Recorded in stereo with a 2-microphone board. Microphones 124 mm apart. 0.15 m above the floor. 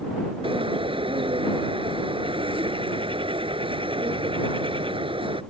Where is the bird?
45° right (ahead or behind).